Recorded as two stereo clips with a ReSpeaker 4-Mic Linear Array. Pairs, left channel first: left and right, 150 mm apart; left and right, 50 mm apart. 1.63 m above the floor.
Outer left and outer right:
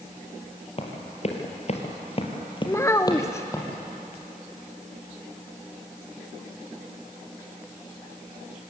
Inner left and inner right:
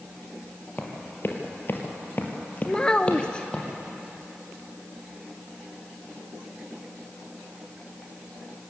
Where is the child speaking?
20° left (ahead or behind), 0.6 m.